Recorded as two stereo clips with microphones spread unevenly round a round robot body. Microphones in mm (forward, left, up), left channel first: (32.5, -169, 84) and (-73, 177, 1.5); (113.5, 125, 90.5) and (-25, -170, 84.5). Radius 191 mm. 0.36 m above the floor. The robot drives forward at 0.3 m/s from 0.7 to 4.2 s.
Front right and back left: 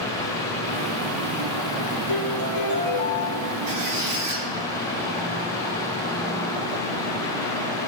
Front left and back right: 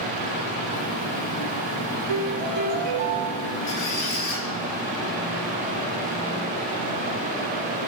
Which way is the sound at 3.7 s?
135° left.